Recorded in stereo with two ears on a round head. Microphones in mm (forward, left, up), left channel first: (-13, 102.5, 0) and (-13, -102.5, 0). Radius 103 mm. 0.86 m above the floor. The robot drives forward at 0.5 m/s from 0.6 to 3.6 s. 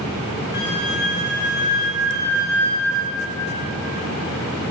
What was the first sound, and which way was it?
A flute, 45° left (ahead or behind).